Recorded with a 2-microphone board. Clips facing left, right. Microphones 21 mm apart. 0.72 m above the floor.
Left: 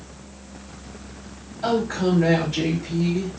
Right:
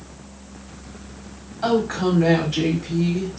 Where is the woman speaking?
60° right (ahead or behind), 1.8 m.